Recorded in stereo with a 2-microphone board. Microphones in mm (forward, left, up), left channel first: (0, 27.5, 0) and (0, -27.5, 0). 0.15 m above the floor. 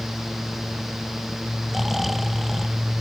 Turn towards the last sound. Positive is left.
turn(degrees=-5)  # may be behind; listen again after turning